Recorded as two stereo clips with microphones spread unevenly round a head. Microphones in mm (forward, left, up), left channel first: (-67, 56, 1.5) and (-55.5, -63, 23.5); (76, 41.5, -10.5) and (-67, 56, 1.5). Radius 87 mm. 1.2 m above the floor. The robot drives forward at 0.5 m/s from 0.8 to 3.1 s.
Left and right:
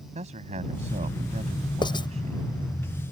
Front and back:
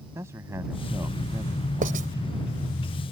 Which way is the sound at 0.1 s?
110° right.